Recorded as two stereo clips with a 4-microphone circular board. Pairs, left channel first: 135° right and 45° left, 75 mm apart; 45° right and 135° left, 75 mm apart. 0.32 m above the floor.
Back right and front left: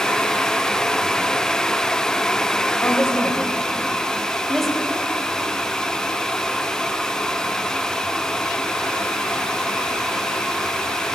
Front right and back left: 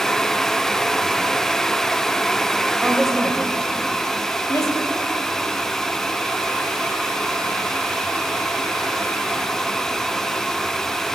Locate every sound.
2.8 s a woman speaking: 160° right, 1.6 m; by 4.8 s 45° right, 2.5 m